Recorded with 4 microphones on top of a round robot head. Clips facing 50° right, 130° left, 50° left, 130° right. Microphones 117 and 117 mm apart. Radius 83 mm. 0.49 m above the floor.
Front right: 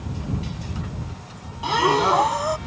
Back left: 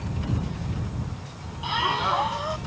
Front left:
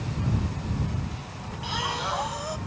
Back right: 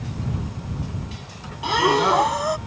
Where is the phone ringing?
No phone ringing in this recording.